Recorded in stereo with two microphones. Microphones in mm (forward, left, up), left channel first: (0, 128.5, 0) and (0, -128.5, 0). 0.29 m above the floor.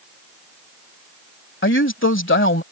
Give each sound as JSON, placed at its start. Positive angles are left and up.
{"t": 1.6, "sound": "a woman speaking", "side_deg": 50}